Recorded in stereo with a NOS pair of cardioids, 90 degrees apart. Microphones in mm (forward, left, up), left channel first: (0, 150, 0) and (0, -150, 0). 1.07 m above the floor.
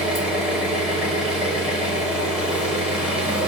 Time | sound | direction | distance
0.0 | an engine running | 5° right | 1.2 m